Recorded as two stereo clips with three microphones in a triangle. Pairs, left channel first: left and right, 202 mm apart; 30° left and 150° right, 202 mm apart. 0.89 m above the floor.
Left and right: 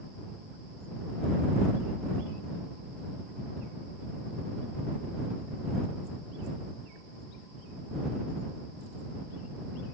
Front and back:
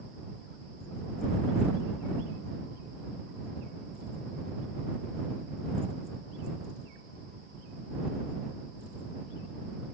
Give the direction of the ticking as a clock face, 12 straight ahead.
No ticking in this recording.